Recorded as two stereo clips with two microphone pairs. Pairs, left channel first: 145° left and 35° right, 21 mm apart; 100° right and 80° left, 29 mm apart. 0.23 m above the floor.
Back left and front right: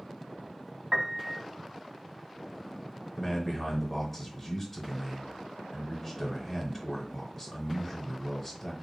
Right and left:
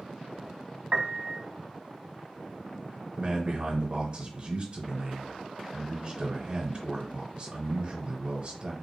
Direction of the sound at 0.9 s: 30° left.